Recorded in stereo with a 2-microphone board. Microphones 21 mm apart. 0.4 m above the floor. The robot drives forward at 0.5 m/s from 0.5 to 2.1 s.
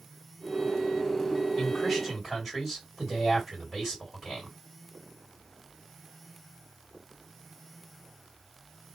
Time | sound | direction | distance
1.6 | a man speaking | centre (ahead or behind) | 2 m